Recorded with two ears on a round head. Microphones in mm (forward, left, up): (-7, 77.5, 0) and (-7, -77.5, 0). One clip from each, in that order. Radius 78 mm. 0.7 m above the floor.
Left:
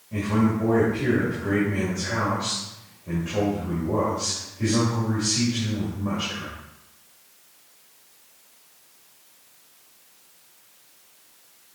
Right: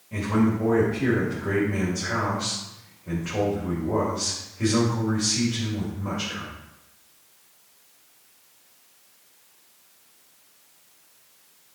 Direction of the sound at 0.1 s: 75° right (ahead or behind).